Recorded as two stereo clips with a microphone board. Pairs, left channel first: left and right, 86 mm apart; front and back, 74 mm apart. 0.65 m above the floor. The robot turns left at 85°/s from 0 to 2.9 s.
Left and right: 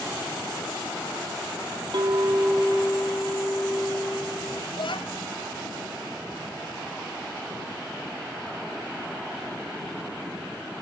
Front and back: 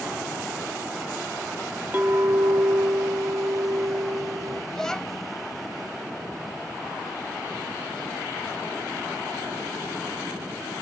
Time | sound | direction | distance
1.9 | a clink | 115° right | ?
4.7 | a child speaking | 80° left | ?